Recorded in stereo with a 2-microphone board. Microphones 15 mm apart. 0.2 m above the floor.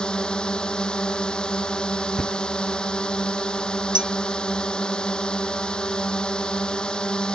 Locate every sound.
0.0 s a drone: 60° left (ahead or behind)
2.2 s a thud: 40° left (ahead or behind)
4.0 s a clink: 75° right (ahead or behind)